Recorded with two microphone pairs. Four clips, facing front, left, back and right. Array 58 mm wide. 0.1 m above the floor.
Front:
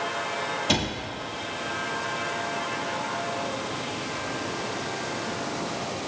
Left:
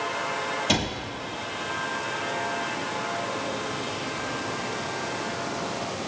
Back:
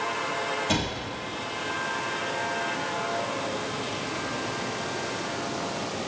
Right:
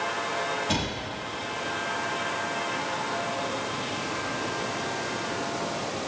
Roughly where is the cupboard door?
Ahead left.